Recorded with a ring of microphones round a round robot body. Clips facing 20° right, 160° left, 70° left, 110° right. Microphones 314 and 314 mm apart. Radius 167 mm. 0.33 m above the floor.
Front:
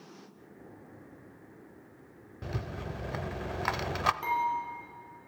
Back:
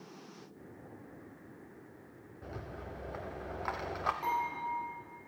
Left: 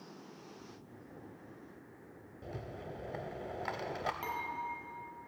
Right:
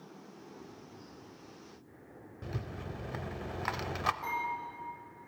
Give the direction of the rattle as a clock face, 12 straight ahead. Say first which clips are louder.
Front 6 dB, right 2 dB; 2 o'clock.